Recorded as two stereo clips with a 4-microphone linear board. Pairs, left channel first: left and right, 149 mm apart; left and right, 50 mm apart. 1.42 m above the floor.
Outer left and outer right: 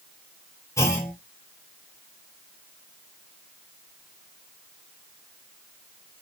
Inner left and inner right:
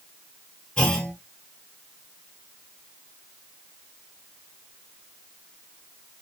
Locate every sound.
0.8 s a clunk: 20° left (ahead or behind), 0.7 m